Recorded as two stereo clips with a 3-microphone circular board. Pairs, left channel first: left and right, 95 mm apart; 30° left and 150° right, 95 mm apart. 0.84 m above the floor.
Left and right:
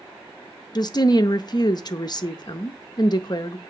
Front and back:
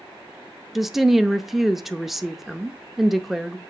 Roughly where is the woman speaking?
Behind left.